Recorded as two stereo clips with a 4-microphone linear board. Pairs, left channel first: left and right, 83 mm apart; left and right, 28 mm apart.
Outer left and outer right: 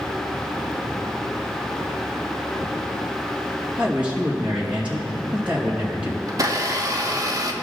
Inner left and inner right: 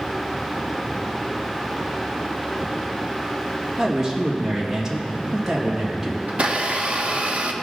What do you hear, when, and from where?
3.8 s a man speaking: 15° right (ahead or behind), 2 m
6.3 s a blender: 40° right (ahead or behind), 0.9 m